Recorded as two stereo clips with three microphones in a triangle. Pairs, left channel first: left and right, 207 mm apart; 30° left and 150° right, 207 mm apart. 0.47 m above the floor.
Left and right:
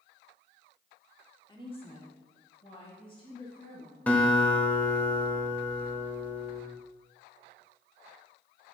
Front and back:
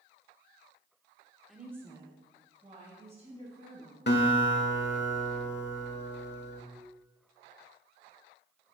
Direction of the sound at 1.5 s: 120° left.